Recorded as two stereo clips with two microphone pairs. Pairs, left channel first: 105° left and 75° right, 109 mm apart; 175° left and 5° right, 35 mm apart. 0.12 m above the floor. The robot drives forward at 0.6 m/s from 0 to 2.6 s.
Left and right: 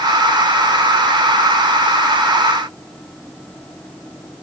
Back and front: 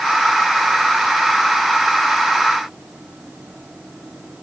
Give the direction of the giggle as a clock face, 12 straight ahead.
I don't hear a giggle.